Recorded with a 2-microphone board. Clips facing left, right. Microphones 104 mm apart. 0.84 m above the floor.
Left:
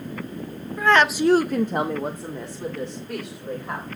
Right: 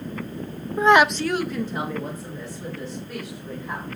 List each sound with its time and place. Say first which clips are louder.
0.8 s a woman speaking: right 2 dB; 25° right (ahead or behind), 0.7 m; by 3.9 s 50° left (ahead or behind), 3.5 m